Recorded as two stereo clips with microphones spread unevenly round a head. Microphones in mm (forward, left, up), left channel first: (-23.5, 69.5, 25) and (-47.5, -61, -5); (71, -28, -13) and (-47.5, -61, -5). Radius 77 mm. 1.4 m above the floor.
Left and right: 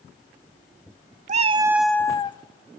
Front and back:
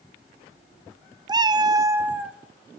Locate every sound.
1.3 s a cat meowing: 125° right, 0.7 m; by 2.4 s 115° left, 1.0 m